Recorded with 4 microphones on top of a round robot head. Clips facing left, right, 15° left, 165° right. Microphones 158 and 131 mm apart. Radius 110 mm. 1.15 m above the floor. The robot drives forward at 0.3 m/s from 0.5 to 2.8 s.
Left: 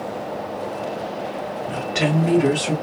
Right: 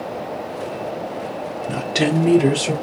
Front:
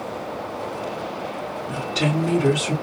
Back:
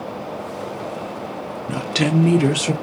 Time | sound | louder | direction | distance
1.7 | a woman speaking | right 3 dB, back 4 dB | 145° right | 0.6 m